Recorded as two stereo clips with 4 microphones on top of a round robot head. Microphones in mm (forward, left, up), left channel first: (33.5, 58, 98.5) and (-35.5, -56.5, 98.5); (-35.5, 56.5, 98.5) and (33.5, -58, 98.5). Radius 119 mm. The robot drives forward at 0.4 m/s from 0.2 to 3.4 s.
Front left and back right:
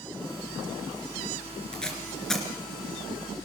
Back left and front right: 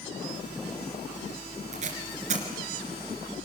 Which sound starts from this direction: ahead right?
Tape being pulled, at 1.7 s.